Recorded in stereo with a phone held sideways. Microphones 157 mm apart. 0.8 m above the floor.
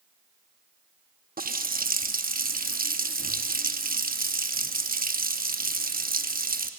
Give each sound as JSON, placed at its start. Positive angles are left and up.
{"t": 1.4, "sound": "a running tap", "side_deg": -70, "distance_m": 0.7}